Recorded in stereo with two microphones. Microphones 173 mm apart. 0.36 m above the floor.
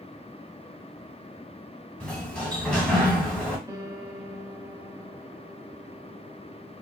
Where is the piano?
20° right (ahead or behind), 0.6 m.